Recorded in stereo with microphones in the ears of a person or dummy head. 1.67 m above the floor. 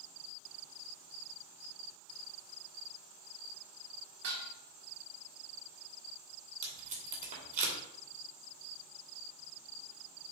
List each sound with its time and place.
4.2 s dishes clattering: 60° right (ahead or behind), 1.4 m
6.6 s tape being pulled: 40° right (ahead or behind), 2.5 m